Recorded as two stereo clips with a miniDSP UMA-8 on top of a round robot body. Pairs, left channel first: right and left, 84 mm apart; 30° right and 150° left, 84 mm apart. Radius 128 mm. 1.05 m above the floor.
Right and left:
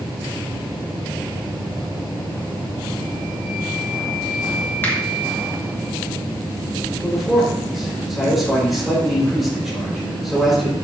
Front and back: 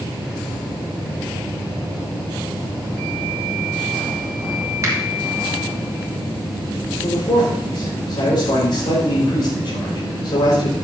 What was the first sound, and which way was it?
A finger snap, 155° right.